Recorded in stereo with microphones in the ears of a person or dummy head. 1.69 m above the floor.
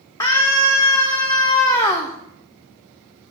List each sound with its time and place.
0.2 s a scream: 20° left (ahead or behind), 0.9 m